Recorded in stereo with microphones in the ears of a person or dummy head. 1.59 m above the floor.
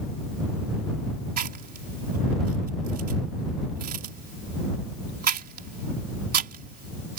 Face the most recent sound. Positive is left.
turn(degrees=-45)  # may be behind; listen again after turning